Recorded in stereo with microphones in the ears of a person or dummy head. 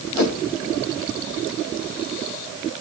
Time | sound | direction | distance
0.1 | a whoosh | 65° left (ahead or behind) | 4.5 m